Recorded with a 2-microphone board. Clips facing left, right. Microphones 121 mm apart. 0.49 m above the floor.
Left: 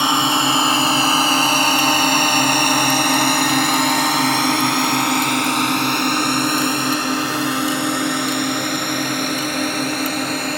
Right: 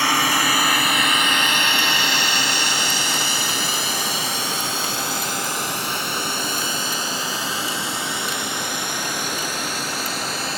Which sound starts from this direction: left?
A drone, at 0.0 s.